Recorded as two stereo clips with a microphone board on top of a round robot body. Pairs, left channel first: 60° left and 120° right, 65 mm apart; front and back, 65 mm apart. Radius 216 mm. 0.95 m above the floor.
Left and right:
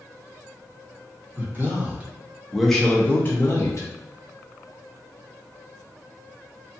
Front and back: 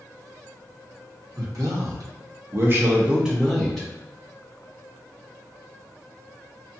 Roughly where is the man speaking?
Behind.